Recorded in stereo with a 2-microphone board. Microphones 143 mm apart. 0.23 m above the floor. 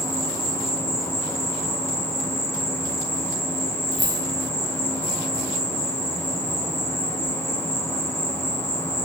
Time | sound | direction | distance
0.0 | an insect | 20° left (ahead or behind) | 0.9 m
3.9 | keys jangling | 50° right (ahead or behind) | 1.3 m